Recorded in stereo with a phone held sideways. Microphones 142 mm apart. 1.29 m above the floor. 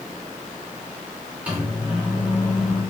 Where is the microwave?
10° right (ahead or behind), 1.7 m.